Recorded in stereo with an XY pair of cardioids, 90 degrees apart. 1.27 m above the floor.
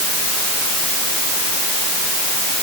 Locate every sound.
Only background noise.